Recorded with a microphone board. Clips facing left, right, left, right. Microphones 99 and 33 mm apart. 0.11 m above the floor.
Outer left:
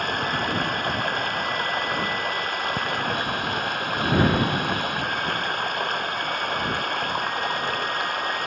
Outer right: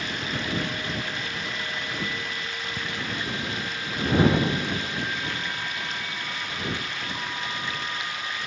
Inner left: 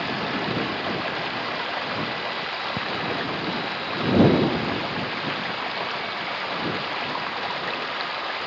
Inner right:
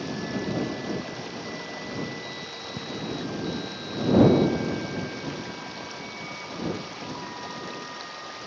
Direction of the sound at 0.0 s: 55° left (ahead or behind).